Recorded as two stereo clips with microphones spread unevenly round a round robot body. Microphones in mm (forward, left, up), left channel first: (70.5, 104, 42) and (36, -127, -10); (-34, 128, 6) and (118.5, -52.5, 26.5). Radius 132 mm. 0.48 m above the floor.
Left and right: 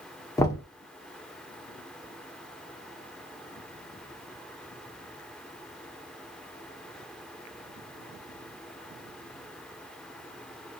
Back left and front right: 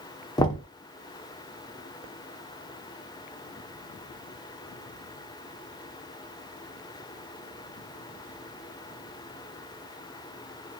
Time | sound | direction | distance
0.4 | knocking | 170° left | 0.5 m